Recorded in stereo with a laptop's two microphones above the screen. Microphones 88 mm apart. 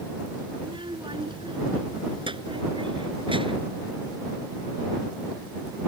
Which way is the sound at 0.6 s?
70° right (ahead or behind).